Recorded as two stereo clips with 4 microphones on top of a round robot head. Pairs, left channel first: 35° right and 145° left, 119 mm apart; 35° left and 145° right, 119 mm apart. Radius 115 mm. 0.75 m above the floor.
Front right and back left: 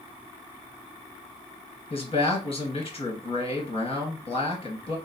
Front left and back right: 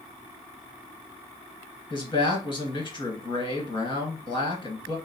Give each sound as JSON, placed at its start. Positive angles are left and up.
{"t": 1.9, "sound": "a man speaking", "azimuth_deg": -10, "distance_m": 1.4}